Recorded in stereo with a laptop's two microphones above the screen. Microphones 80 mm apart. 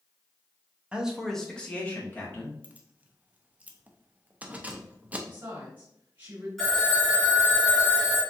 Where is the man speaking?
15° right (ahead or behind), 0.8 m; by 2.5 s 25° left (ahead or behind), 2.0 m.